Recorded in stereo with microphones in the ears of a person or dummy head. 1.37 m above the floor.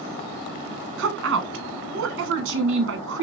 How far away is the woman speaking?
About 1.1 m.